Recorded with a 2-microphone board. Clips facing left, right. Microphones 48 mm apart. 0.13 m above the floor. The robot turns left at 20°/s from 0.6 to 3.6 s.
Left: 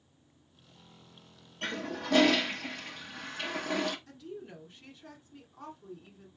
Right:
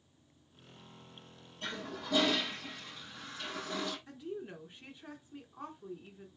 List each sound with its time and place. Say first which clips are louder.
1.6 s a toilet flushing: left 5 dB; 115° left, 1.0 m; by 4.0 s 75° left, 1.0 m
4.1 s a woman speaking: right 2 dB; 20° right (ahead or behind), 1.3 m